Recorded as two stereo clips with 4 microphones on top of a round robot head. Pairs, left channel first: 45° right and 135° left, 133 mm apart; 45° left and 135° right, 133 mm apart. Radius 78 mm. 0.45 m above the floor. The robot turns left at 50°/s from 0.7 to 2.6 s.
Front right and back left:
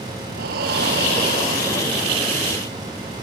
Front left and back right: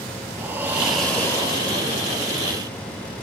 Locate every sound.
0.3 s breathing: 150° left, 1.8 m; by 2.1 s 80° left, 1.8 m